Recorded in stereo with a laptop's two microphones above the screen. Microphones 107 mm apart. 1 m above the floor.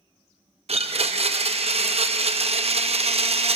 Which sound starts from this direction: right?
A blender, at 0.7 s.